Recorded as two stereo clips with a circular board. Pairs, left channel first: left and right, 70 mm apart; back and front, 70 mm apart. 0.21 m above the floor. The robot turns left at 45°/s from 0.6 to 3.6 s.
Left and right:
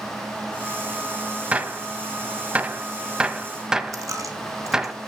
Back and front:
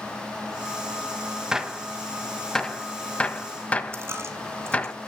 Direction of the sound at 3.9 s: 50° right.